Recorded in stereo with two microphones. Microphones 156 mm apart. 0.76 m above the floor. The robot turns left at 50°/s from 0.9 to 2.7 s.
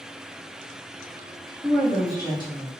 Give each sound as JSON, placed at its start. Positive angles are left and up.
{"t": 1.6, "sound": "a woman speaking", "azimuth_deg": 165, "distance_m": 0.9}